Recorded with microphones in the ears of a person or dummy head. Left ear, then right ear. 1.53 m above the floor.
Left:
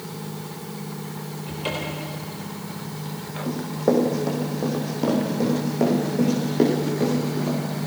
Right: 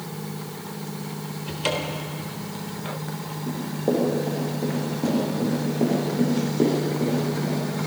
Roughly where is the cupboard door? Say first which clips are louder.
Right 3 dB; right.